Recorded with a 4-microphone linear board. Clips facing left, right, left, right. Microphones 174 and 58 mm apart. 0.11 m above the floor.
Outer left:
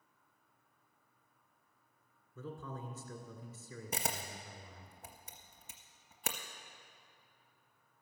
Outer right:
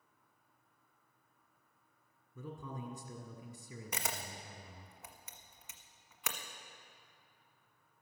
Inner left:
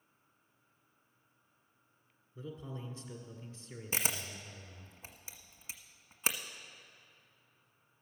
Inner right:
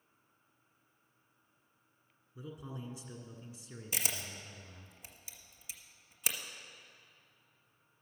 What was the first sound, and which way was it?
A man speaking, 15° right (ahead or behind).